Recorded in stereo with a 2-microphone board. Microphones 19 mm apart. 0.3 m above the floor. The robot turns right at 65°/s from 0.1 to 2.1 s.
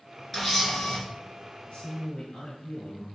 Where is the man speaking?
75° left (ahead or behind), 5 m; by 3.0 s 55° left (ahead or behind), 5 m.